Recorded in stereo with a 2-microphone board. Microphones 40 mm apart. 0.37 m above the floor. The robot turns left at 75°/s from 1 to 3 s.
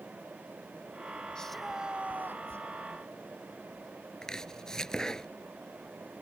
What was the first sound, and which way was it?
A shout, 20° left.